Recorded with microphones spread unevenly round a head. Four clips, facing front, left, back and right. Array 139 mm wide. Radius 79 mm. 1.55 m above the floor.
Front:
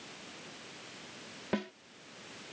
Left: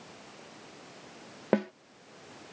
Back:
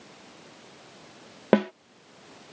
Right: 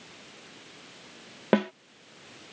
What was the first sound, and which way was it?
A snare drum, 170° right.